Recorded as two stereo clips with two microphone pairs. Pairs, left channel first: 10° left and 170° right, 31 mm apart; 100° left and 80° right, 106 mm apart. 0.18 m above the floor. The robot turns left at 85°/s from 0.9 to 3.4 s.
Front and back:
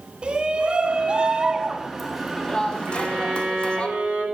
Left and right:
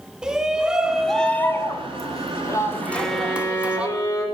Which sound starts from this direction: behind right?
A violin, at 2.9 s.